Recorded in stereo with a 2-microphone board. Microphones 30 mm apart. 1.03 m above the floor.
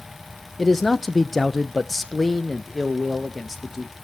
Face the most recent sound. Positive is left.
turn(degrees=0)  # may be behind; listen again after turning